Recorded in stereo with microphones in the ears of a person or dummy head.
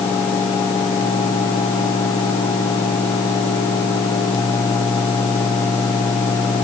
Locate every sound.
Only background noise.